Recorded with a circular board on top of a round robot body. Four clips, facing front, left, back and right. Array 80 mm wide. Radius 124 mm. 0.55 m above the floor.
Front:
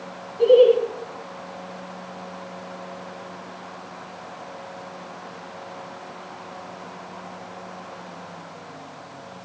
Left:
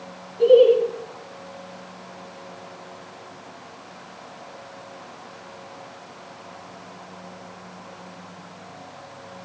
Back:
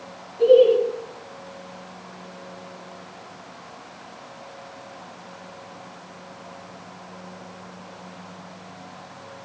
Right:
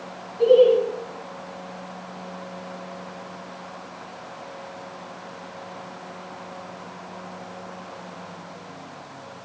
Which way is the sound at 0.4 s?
5° right.